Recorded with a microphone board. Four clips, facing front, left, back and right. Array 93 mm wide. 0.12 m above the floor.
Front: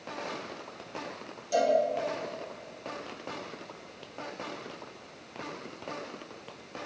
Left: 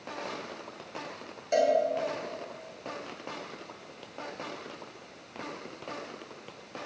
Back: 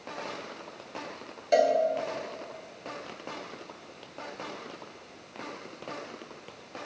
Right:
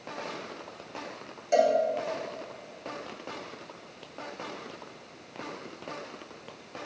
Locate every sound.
1.5 s a cowbell: 175° right, 2 m